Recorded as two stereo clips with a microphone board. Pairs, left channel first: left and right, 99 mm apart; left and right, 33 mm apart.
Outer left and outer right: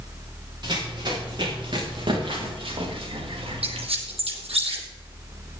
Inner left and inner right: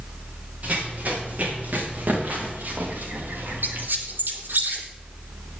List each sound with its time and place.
0.6 s running footsteps: 45° right (ahead or behind), 9 m; by 3.9 s 65° right (ahead or behind), 5 m
3.6 s a squeak: 85° right, 3 m